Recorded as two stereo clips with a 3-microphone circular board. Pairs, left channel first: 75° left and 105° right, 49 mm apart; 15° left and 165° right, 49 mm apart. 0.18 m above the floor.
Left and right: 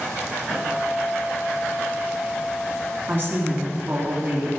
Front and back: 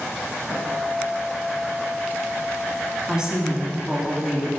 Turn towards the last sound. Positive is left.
turn(degrees=-90)